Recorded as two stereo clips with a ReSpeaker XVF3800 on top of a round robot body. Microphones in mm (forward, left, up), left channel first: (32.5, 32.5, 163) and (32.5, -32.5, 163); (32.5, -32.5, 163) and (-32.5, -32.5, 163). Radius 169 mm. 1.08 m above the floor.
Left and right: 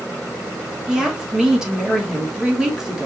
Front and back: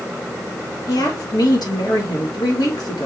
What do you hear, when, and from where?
0.9 s a woman speaking: 10° right, 2.5 m